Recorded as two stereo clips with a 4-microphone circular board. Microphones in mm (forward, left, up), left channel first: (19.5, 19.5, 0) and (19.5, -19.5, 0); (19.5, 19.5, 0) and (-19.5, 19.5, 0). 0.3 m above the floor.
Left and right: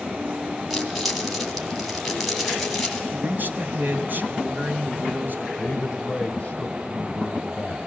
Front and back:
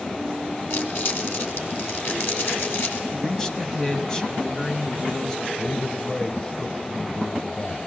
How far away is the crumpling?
About 2.5 m.